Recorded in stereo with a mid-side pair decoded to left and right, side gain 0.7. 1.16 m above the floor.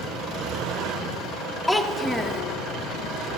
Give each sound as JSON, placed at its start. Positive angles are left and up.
{"t": 1.7, "sound": "a child speaking", "azimuth_deg": 5, "distance_m": 0.7}